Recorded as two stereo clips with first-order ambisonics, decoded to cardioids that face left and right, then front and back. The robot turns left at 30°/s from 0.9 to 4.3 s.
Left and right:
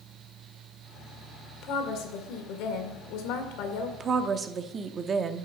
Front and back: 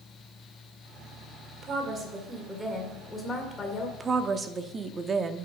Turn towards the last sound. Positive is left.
turn(degrees=-130)